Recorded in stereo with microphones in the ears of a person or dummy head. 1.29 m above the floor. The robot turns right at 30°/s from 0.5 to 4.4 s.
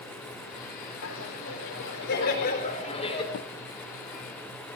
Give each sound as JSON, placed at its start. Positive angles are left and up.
{"t": 1.0, "sound": "laughter", "azimuth_deg": 85, "distance_m": 4.0}
{"t": 3.3, "sound": "a drawer", "side_deg": 60, "distance_m": 0.6}